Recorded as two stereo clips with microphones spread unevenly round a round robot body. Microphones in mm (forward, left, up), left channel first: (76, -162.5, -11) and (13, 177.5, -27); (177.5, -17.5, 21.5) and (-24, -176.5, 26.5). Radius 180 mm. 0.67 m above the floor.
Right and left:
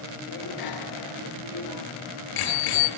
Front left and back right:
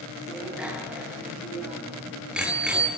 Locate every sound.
0.3 s a bicycle bell: 55° right, 8.5 m